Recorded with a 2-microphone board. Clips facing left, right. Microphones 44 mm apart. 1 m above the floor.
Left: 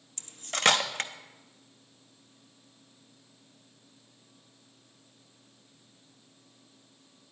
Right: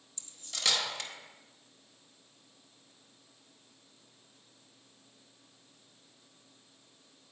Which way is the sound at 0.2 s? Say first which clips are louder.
Left 10 dB; 50° left (ahead or behind).